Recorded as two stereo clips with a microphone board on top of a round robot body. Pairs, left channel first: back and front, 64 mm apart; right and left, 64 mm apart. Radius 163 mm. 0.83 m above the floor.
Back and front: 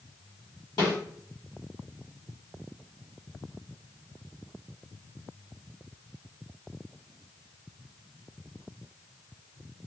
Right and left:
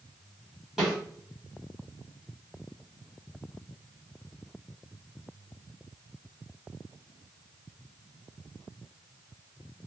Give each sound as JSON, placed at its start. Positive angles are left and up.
{"t": 0.8, "sound": "a snare drum", "azimuth_deg": 175, "distance_m": 1.3}